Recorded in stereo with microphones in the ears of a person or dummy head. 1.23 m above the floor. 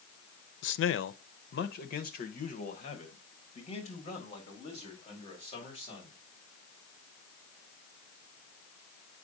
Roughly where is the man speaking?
Left.